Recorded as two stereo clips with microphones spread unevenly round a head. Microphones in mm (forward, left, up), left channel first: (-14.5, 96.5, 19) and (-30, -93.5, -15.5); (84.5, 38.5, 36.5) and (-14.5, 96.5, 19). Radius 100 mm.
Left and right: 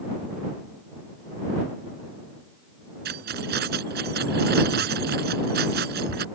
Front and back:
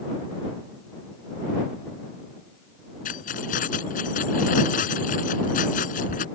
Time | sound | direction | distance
3.0 | keys jangling | 50° right | ?